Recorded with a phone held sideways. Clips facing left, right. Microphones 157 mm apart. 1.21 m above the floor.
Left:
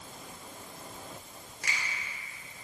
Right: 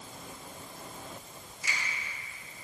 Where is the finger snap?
80° left, 3 m.